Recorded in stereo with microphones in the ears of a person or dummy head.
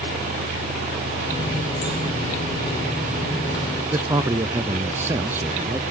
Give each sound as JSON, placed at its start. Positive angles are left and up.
{"t": 1.3, "sound": "a running tap", "side_deg": 25, "distance_m": 5.0}
{"t": 3.9, "sound": "a man speaking", "side_deg": -15, "distance_m": 0.6}